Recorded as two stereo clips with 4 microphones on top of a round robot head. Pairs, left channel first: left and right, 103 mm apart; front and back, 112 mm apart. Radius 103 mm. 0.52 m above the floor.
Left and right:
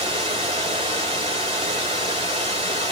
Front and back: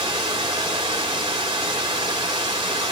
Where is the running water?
130° right, 1.4 m.